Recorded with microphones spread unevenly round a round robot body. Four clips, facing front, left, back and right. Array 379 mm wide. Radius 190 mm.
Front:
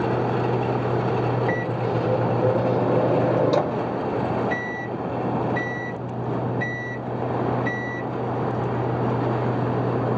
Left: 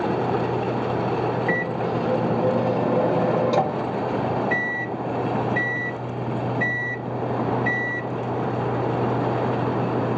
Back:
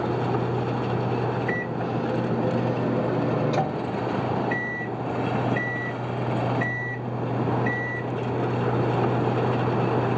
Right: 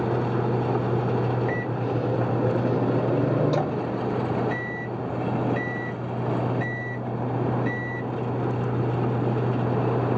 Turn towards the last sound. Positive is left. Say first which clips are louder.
# left 3 dB, front 3 dB
turn(degrees=0)